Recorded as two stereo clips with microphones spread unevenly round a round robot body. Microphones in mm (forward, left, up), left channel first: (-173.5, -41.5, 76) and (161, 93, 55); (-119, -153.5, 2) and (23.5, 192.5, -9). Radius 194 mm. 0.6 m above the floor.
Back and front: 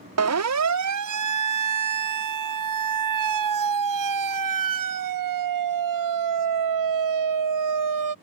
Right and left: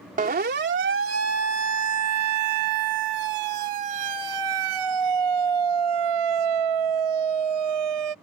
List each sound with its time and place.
0.2 s a siren: 5° left; by 8.1 s 55° left